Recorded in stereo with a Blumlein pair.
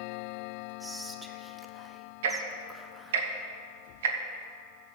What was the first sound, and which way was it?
Whispering, 5° right.